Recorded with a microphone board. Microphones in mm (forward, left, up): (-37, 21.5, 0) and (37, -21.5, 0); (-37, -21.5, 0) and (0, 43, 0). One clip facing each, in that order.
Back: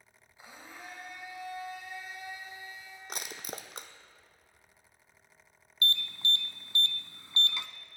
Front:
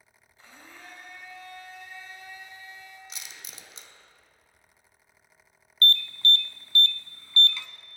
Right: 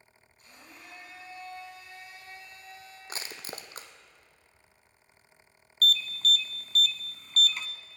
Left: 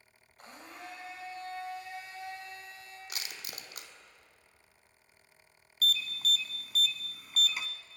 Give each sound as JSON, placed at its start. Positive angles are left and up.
{"t": 0.4, "sound": "a blender", "azimuth_deg": 75, "distance_m": 4.5}
{"t": 3.1, "sound": "crushing", "azimuth_deg": -175, "distance_m": 1.1}
{"t": 5.8, "sound": "an alarm", "azimuth_deg": 130, "distance_m": 0.7}